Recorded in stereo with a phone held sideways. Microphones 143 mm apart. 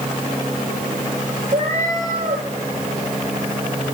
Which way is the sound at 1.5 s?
55° right (ahead or behind).